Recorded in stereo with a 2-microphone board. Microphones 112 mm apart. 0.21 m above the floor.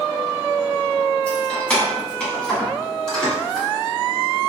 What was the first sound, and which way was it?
Keys jangling, 15° left (ahead or behind).